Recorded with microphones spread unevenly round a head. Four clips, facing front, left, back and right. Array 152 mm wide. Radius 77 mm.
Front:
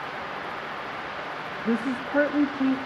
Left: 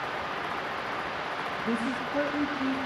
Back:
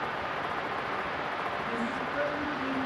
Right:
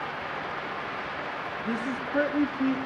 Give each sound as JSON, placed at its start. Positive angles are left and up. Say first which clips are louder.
{"t": 1.6, "sound": "a woman speaking", "louder": "left 1 dB, front 5 dB", "azimuth_deg": 5, "distance_m": 0.9}